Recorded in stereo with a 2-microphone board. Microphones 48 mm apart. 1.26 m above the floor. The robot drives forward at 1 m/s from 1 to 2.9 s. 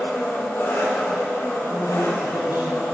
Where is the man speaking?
75° right (ahead or behind), 4 m; by 2.9 s 80° right, 4 m.